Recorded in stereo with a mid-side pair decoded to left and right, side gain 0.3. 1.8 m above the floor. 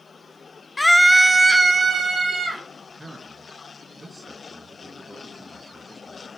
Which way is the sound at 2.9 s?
20° right.